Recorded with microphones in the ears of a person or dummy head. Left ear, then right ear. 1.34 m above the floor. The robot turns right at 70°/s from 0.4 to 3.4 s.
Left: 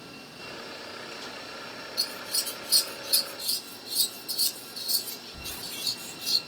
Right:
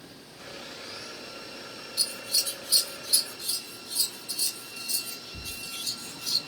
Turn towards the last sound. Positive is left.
turn(degrees=20)  # may be behind; listen again after turning